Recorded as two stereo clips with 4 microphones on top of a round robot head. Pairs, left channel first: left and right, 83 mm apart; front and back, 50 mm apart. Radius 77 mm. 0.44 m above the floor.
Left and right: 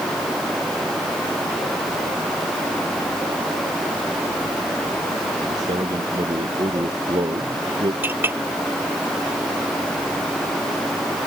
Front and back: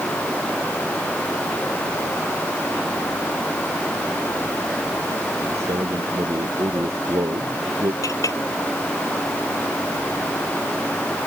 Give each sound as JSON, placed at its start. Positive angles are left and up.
{"t": 5.5, "sound": "a man speaking", "azimuth_deg": -140}
{"t": 8.0, "sound": "a clink", "azimuth_deg": -25}